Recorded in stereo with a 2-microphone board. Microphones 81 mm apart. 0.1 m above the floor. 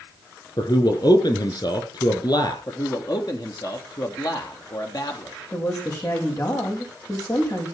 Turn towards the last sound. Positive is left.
turn(degrees=50)  # may be behind; listen again after turning